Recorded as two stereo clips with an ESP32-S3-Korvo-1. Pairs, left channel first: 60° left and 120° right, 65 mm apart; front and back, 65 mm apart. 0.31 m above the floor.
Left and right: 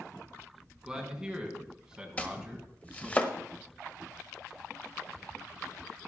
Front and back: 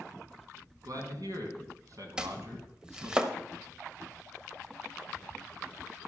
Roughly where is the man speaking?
Behind.